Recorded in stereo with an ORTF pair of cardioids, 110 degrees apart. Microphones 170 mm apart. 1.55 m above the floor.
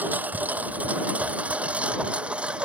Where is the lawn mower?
10° right; by 2.7 s 5° right.